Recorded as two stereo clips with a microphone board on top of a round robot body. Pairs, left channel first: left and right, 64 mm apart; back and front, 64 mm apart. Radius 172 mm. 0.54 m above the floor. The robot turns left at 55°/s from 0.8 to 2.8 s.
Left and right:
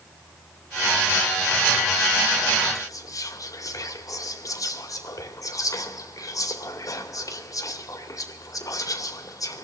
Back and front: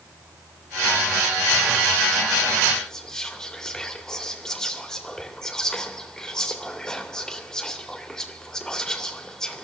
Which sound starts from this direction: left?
Whispering, at 2.8 s.